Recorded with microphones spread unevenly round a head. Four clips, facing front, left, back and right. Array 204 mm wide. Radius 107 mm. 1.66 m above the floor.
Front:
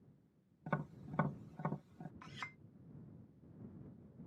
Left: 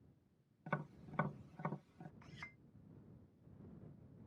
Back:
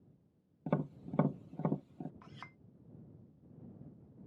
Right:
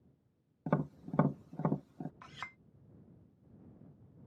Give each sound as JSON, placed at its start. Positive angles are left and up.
{"t": 0.7, "sound": "tapping", "azimuth_deg": -125}
{"t": 2.2, "sound": "a clink", "azimuth_deg": -65}